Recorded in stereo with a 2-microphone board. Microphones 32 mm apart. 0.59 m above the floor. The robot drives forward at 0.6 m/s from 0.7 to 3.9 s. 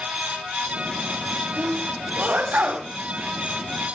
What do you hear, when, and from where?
1.6 s a sneeze: 55° right (ahead or behind), 3 m; by 2.9 s 70° right (ahead or behind), 3 m